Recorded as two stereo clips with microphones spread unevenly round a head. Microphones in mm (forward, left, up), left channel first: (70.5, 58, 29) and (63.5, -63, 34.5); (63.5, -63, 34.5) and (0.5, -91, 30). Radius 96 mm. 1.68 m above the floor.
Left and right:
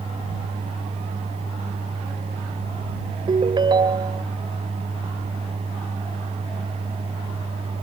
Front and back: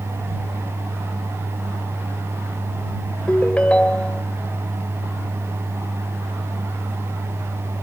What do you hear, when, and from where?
3.3 s a ringtone: 45° right